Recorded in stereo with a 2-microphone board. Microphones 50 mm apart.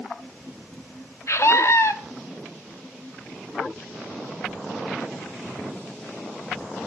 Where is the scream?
60° left (ahead or behind), 1.7 m.